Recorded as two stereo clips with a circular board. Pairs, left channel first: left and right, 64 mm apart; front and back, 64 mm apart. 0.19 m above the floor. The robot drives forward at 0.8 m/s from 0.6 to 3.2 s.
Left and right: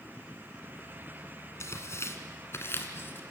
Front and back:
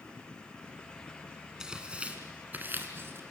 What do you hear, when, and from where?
1.6 s tearing paper: 105° left, 2 m; by 3.2 s 135° left, 2.5 m